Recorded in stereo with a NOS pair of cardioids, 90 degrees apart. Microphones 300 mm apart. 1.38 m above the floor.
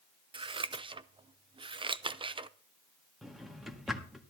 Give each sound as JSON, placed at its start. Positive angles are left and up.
{"t": 0.3, "sound": "scissors", "azimuth_deg": -15, "distance_m": 0.5}
{"t": 3.2, "sound": "a drawer", "azimuth_deg": 0, "distance_m": 1.5}